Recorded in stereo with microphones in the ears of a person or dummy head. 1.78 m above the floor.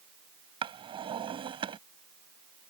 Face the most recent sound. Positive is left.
turn(degrees=-25)  # may be behind; listen again after turning